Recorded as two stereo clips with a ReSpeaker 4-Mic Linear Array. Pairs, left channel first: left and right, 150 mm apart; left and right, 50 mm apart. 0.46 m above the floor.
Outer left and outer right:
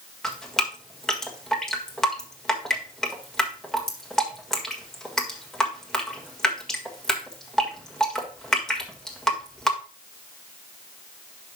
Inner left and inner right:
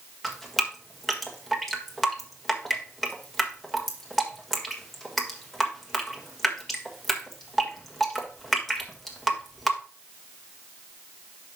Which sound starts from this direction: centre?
Dripping, at 0.2 s.